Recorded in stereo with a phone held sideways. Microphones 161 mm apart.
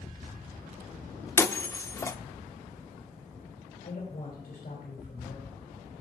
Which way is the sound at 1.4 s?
15° left (ahead or behind).